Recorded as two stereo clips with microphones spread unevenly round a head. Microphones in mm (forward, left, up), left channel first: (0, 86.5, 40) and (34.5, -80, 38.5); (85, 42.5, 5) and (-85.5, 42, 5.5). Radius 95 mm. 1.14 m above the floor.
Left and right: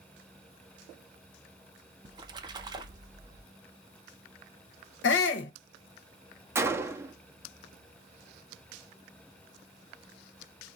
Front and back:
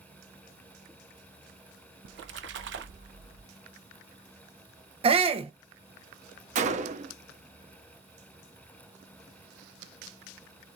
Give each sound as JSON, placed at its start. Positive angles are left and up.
{"t": 2.0, "sound": "a splash", "azimuth_deg": -145, "distance_m": 0.7}
{"t": 5.0, "sound": "a shout", "azimuth_deg": 125, "distance_m": 0.8}
{"t": 6.5, "sound": "a gunshot", "azimuth_deg": -145, "distance_m": 0.8}